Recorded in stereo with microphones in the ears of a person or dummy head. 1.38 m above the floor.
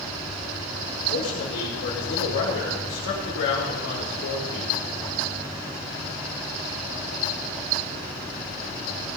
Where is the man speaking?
60° left (ahead or behind), 3.5 m.